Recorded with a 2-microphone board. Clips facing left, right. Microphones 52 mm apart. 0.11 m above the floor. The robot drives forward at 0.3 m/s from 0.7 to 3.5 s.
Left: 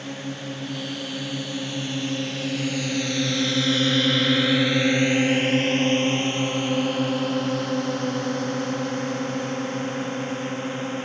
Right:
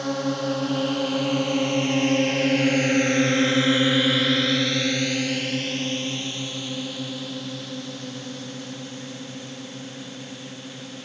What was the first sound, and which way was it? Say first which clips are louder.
A drone: right 7 dB; 65° right (ahead or behind).